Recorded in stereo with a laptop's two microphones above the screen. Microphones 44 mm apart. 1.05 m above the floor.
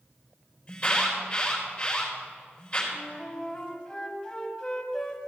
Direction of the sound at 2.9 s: 15° left (ahead or behind).